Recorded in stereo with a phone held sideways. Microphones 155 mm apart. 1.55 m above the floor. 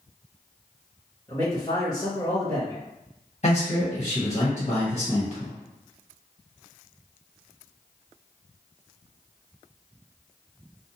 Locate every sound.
1.3 s a man speaking: 25° left (ahead or behind), 1.0 m
3.4 s a man speaking: 45° left (ahead or behind), 1.4 m